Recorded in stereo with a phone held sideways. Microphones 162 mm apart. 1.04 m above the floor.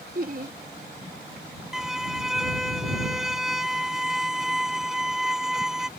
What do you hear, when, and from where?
0.1 s laughter: 60° right (ahead or behind)
1.7 s a violin: 5° right (ahead or behind)